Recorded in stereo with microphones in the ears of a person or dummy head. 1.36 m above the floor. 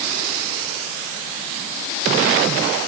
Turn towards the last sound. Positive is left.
No sound to turn to.